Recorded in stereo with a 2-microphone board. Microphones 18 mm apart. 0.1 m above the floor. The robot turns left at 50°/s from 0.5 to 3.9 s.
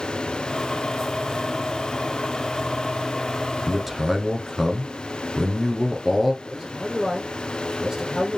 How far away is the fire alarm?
No fire alarm in this recording.